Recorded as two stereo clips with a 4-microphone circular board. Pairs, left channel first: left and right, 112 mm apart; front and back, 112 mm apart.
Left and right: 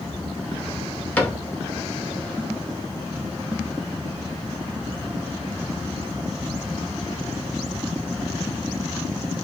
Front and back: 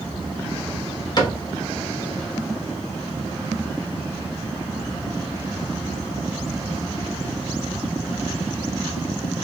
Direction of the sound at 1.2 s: 20° left.